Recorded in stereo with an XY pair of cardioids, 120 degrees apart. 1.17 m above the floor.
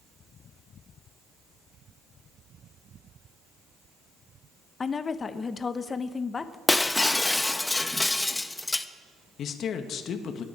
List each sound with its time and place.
4.8 s a woman speaking: 30° left, 1.0 m
6.7 s breaking glass: 15° left, 0.7 m
9.4 s a man speaking: 55° left, 1.6 m